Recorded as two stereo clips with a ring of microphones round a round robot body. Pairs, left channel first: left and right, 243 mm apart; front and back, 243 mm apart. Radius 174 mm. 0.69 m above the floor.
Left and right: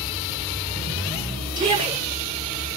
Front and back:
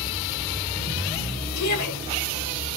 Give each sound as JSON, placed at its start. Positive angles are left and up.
{"t": 1.6, "sound": "a shout", "azimuth_deg": -20, "distance_m": 8.0}